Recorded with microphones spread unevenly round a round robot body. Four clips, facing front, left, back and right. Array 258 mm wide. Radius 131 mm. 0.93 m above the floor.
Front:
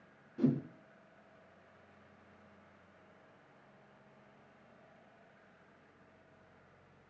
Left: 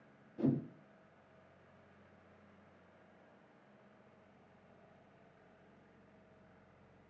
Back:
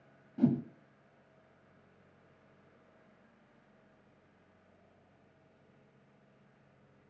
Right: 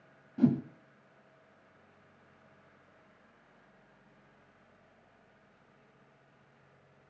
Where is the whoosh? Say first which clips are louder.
Right 7 dB, back 3 dB; 115° right, 1.7 m.